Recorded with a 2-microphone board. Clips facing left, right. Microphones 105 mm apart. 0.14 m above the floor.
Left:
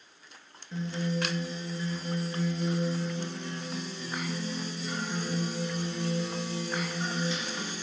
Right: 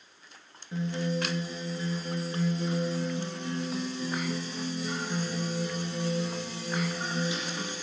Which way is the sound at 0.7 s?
15° right (ahead or behind).